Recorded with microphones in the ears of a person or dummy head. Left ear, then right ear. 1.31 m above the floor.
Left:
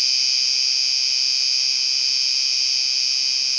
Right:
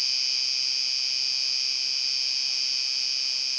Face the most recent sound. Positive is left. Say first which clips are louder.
# left 6 dB
turn(degrees=10)  # may be behind; listen again after turning